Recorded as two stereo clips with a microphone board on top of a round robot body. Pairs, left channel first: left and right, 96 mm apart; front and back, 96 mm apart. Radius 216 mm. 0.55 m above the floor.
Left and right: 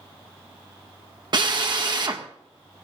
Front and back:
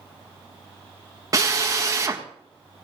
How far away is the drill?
About 1.7 m.